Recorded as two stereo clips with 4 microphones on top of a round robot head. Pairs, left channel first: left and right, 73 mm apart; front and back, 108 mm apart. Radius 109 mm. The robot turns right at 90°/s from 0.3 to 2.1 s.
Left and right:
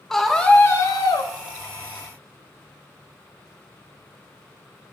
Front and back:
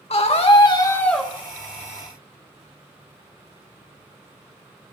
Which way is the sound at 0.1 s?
5° left.